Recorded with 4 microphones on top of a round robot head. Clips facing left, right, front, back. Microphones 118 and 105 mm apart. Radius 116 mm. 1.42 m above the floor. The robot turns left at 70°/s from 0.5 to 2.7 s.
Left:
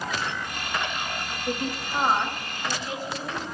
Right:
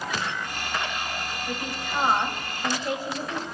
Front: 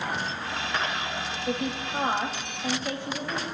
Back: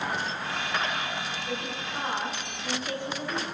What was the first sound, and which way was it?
A woman speaking, 40° left.